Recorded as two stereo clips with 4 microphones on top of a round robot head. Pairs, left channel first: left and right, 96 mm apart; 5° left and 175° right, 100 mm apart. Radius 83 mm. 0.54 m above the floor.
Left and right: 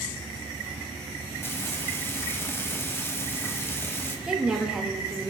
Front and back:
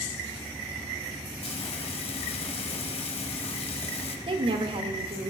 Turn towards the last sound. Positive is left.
turn(degrees=-170)